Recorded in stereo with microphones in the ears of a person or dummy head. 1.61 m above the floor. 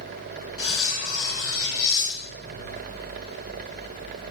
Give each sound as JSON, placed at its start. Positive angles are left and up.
{"t": 0.6, "sound": "cutlery clinking", "side_deg": 30, "distance_m": 1.5}